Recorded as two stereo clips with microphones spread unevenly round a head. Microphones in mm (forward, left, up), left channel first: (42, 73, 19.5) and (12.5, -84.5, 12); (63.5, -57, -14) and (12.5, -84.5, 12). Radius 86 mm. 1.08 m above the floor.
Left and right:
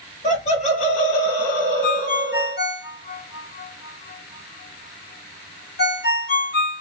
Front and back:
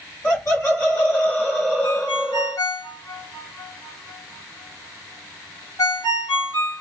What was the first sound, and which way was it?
Laughter, 35° left.